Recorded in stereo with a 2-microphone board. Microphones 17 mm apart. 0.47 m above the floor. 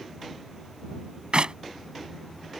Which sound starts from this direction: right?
A clap, at 1.3 s.